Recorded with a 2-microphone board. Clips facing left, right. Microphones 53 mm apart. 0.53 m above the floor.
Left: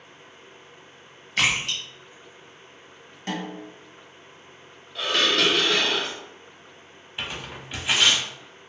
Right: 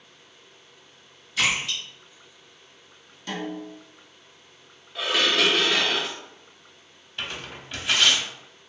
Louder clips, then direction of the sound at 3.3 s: Even; 40° left (ahead or behind).